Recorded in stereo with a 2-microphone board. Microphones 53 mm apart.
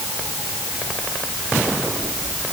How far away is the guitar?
No guitar in this recording.